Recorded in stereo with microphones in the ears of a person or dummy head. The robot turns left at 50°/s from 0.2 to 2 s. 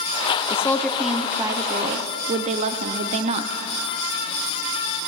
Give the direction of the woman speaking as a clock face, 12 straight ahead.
11 o'clock.